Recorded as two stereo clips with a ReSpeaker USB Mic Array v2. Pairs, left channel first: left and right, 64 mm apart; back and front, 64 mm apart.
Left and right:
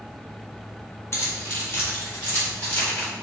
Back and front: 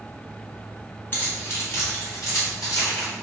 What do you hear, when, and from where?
1.1 s keys jangling: 125° left, 1.1 m; by 3.1 s 150° left, 3 m